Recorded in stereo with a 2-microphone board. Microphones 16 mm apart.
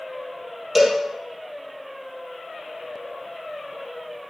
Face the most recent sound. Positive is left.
turn(degrees=-10)  # may be behind; listen again after turning